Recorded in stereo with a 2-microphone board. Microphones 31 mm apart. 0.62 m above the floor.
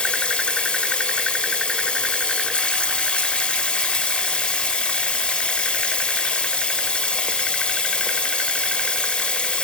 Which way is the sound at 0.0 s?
40° left (ahead or behind).